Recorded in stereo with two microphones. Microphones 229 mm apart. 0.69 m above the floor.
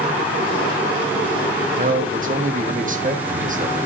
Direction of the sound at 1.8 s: 35° right (ahead or behind).